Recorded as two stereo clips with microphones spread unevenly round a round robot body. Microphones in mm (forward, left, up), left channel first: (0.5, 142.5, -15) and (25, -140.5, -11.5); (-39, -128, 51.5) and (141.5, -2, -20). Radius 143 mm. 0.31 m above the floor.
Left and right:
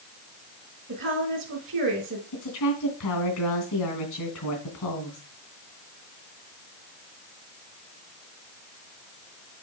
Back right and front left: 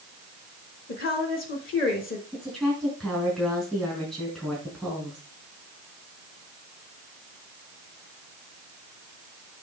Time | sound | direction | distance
0.9 | a woman speaking | 95° right | 1.7 m
2.3 | a woman speaking | 120° left | 3 m